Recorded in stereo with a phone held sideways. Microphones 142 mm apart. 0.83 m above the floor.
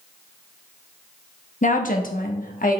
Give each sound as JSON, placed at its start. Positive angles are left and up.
{"t": 1.6, "sound": "a woman speaking", "side_deg": 55, "distance_m": 1.0}